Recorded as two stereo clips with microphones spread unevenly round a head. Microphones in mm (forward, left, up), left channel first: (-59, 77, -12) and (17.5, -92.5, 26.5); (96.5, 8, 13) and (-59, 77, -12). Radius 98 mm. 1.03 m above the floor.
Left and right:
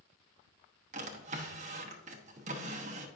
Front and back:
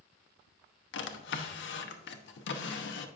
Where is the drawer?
10° right, 0.9 m.